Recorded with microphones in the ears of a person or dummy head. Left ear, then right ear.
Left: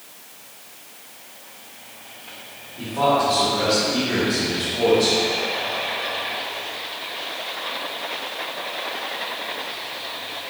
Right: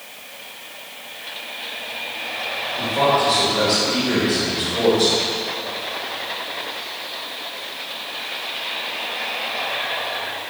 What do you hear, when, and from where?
2.8 s a man speaking: 60° right (ahead or behind), 2 m